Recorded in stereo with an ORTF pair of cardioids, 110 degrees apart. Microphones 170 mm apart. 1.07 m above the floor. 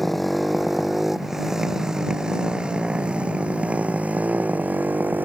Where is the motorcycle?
Straight ahead; by 5.2 s 10° right.